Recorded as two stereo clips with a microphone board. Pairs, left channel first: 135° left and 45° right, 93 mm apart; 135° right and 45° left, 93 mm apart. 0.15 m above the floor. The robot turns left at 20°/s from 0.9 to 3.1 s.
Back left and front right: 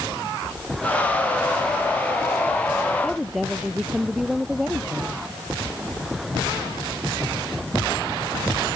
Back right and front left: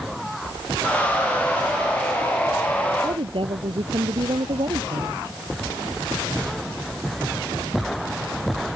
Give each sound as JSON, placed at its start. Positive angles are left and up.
{"t": 3.0, "sound": "a woman speaking", "azimuth_deg": 45}